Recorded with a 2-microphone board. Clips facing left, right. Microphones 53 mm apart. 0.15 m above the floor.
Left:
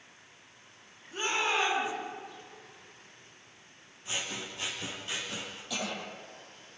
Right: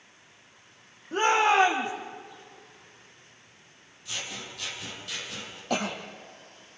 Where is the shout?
55° right (ahead or behind), 7 m.